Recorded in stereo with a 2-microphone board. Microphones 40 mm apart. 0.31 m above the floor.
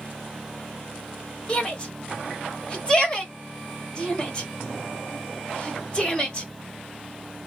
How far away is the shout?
About 1.3 m.